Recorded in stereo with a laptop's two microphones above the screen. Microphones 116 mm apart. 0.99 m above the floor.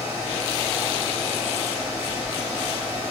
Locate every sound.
0.0 s a fan: 55° left (ahead or behind), 1.2 m